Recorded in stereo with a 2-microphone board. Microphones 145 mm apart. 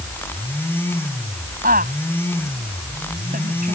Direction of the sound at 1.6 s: 80° right.